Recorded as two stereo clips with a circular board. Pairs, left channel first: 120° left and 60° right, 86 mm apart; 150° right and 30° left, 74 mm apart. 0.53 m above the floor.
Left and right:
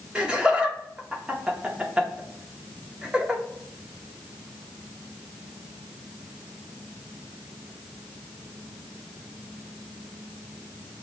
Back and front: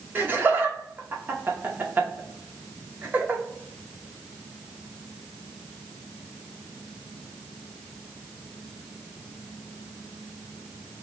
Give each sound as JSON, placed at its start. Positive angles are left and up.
{"t": 0.1, "sound": "laughter", "azimuth_deg": 5, "distance_m": 0.7}